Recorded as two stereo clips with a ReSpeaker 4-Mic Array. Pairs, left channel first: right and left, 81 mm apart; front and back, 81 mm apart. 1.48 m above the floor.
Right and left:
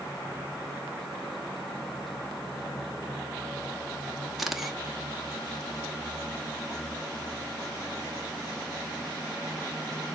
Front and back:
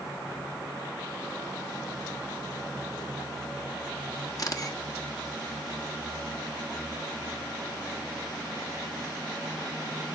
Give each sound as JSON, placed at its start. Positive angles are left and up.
{"t": 4.4, "sound": "a camera shutter", "azimuth_deg": 5, "distance_m": 1.2}